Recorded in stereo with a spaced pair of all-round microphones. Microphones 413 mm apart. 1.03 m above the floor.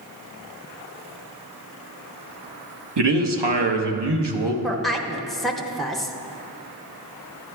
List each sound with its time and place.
3.0 s a man speaking: 75° right (ahead or behind), 0.9 m
4.6 s a woman speaking: centre (ahead or behind), 0.6 m